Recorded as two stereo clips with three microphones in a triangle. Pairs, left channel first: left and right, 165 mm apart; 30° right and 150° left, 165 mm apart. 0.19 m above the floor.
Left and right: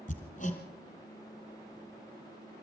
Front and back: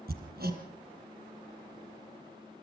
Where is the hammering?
130° left, 3.5 m.